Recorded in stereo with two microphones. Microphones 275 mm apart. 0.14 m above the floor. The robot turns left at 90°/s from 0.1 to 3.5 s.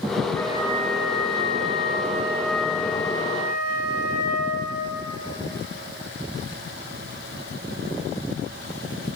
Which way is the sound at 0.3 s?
10° left.